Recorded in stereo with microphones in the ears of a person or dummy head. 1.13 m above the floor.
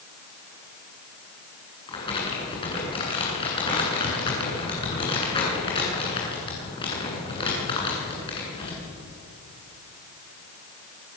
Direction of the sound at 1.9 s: 25° left (ahead or behind).